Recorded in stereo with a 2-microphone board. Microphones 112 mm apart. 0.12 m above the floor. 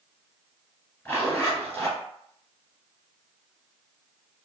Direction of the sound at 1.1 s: 20° left (ahead or behind).